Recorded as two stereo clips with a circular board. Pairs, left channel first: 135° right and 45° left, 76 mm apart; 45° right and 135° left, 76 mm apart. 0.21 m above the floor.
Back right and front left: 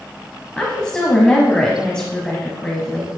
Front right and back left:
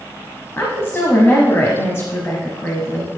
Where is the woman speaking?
65° right, 1.2 m.